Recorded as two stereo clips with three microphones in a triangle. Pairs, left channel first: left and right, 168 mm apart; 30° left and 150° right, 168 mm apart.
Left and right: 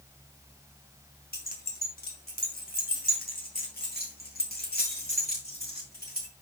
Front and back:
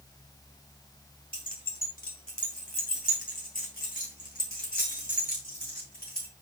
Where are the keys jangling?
65° left, 1.9 m.